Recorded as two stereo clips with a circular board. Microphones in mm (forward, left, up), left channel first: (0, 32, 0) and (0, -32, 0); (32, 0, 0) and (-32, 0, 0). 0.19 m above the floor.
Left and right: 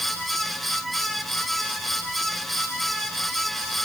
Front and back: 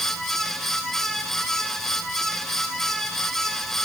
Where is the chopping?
No chopping in this recording.